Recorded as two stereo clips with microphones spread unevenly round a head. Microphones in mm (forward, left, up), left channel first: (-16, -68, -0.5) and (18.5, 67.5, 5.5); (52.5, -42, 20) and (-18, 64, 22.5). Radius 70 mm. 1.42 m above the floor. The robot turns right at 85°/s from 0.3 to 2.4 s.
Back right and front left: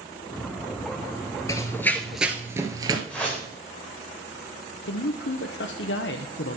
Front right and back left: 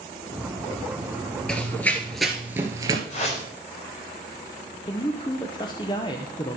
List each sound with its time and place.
1.5 s running footsteps: 135° right, 1.4 m; by 3.0 s 95° left, 1.6 m
3.1 s a whoosh: 20° right, 3.5 m
4.8 s a man speaking: 120° right, 0.7 m